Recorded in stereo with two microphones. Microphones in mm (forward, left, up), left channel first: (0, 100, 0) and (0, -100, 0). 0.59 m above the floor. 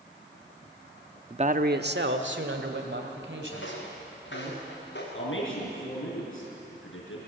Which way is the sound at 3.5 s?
75° left (ahead or behind).